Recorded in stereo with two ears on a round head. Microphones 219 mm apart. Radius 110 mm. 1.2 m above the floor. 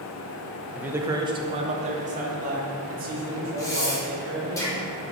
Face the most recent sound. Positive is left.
turn(degrees=15)  # may be behind; listen again after turning